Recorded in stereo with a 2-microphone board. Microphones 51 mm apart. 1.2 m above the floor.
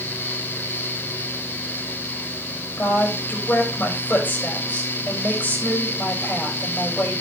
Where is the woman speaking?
40° left (ahead or behind), 6.5 m.